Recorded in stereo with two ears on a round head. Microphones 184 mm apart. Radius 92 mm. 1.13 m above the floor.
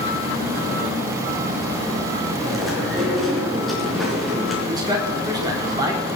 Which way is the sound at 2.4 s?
Centre (ahead or behind).